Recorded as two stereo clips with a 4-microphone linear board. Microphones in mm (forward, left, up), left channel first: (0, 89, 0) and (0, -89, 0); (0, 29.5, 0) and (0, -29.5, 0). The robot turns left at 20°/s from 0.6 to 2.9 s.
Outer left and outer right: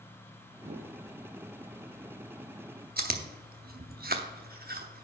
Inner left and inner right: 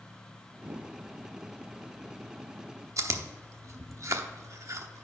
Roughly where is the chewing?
Right.